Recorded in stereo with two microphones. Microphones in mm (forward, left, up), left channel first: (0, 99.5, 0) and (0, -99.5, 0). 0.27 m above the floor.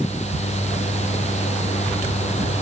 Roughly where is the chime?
I don't hear a chime.